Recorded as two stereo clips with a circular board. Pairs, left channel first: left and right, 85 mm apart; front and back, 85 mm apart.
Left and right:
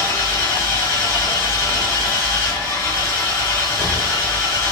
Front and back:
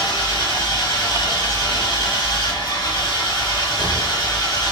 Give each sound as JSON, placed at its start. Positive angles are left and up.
{"t": 0.0, "sound": "an engine running", "azimuth_deg": 25, "distance_m": 5.0}